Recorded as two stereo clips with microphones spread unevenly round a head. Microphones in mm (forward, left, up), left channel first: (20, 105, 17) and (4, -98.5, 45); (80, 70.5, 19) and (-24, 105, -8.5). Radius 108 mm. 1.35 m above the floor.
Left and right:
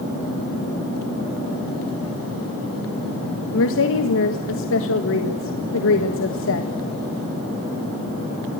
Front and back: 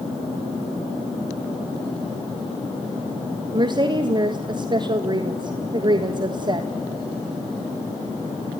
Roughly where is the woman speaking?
Behind left.